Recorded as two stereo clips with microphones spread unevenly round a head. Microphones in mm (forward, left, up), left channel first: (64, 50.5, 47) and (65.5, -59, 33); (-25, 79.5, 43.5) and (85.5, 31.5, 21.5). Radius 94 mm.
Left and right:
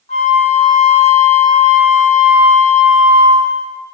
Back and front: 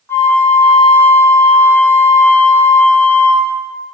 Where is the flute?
80° left, 0.9 m.